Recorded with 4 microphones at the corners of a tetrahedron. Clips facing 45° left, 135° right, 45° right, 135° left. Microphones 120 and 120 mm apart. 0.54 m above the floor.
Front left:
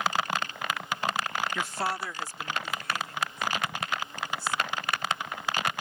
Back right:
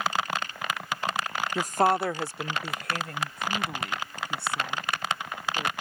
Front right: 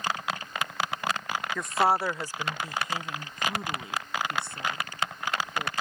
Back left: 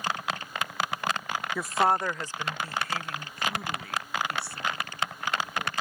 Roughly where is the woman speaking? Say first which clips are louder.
Back right 8 dB, even; behind right.